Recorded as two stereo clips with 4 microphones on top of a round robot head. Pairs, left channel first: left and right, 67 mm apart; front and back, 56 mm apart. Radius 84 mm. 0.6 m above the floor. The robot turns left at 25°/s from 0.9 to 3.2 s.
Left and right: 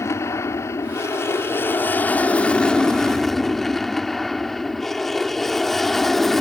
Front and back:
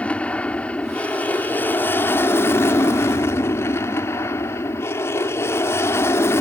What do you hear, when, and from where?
0.0 s an aircraft: 60° left; by 6.4 s 5° left